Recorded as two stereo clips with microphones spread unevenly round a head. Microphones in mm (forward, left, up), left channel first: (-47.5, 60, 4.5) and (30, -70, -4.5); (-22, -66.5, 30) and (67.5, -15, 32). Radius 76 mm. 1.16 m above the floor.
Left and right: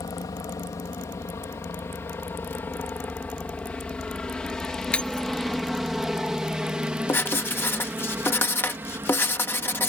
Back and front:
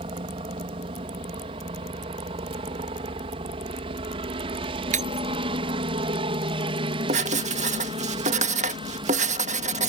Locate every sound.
0.0 s a helicopter: 55° left; by 9.9 s 10° left
4.9 s breaking glass: 40° left
7.1 s writing: 45° left